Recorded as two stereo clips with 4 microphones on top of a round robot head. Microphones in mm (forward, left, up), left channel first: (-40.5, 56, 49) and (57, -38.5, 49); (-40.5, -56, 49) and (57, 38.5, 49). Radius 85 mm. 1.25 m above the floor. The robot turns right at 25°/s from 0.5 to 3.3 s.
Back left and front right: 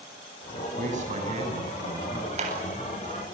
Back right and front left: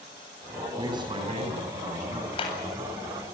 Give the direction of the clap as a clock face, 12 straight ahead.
3 o'clock.